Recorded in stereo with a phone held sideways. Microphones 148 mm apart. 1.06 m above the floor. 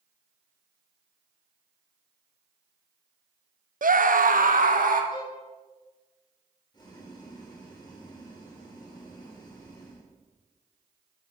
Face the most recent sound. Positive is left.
turn(degrees=30)  # may be behind; listen again after turning